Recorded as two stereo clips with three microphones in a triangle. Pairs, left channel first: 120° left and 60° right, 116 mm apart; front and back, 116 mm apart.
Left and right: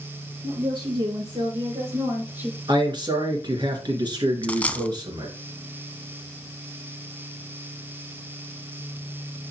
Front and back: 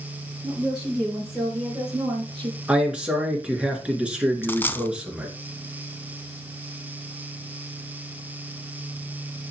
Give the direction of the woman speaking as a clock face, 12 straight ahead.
3 o'clock.